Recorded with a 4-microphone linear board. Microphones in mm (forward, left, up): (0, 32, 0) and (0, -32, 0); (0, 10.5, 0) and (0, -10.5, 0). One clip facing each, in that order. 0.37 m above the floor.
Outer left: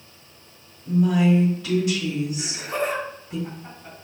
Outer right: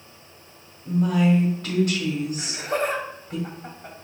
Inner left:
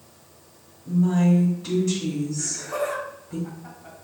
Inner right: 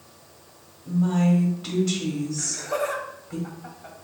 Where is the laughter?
55° right (ahead or behind), 1.8 m.